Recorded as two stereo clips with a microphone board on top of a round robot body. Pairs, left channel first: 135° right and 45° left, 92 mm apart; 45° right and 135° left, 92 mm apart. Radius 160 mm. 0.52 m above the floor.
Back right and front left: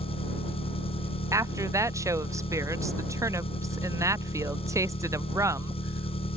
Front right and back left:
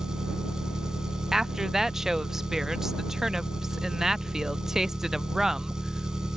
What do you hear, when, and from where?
0.0 s an engine running: 140° right
1.3 s a woman speaking: 55° left